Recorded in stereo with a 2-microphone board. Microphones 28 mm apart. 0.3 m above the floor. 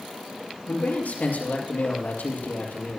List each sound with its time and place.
0.7 s a man speaking: 80° left, 5.5 m